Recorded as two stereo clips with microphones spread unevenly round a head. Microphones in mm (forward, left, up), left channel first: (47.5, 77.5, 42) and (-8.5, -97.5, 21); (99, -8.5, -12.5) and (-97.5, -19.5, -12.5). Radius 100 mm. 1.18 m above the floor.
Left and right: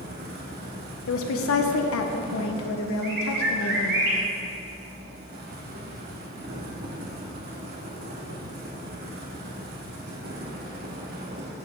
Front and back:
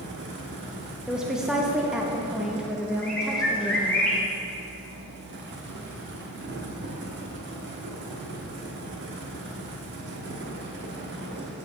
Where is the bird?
80° right, 2.5 m.